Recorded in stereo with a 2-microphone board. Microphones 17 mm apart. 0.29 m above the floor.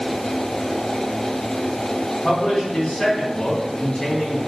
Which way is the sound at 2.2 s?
50° left (ahead or behind).